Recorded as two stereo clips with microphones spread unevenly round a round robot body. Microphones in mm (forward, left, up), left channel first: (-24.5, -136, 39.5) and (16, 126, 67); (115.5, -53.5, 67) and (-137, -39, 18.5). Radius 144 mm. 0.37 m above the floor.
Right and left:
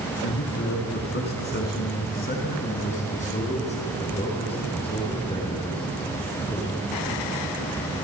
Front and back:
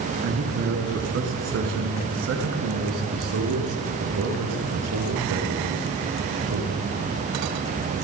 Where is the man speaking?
145° right, 4.5 m; by 6.8 s 175° right, 7 m.